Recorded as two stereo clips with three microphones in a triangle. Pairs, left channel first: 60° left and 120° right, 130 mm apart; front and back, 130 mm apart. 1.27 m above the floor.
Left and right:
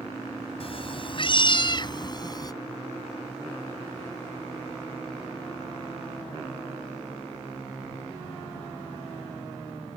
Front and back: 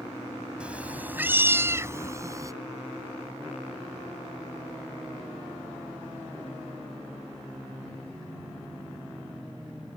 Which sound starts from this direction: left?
A cat meowing, at 0.6 s.